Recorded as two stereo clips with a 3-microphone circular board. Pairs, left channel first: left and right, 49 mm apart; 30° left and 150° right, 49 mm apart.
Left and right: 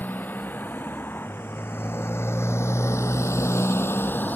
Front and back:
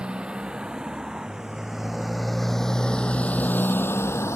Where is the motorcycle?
140° left; by 4.4 s 40° left.